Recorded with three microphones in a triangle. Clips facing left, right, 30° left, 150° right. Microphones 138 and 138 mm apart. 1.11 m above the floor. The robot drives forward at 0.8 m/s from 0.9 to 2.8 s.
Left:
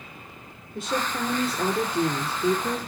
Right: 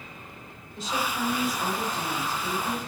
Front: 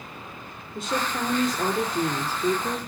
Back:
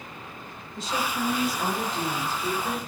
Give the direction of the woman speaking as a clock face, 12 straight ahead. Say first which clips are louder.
Left 2 dB, front 1 dB; 10 o'clock.